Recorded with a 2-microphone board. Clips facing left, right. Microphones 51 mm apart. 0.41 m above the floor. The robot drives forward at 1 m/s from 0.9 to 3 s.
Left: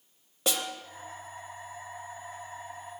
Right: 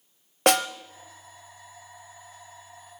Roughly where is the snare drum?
Right.